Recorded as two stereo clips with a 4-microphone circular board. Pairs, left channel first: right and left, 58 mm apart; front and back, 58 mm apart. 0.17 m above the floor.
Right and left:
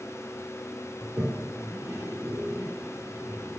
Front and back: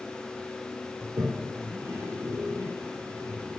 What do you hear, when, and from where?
1.0 s a toilet flushing: 140° left, 2.5 m